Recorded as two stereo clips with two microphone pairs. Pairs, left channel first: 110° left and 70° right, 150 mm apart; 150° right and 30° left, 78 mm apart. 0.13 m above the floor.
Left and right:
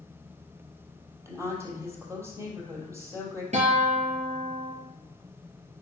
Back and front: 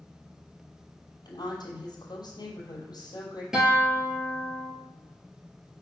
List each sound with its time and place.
1.2 s a woman speaking: 140° right, 3 m
3.5 s a guitar: 50° right, 3 m